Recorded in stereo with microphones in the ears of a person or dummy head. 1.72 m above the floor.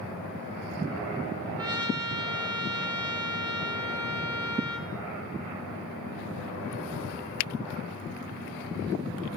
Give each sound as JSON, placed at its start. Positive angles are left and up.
{"t": 1.6, "sound": "a trumpet", "side_deg": -20, "distance_m": 1.2}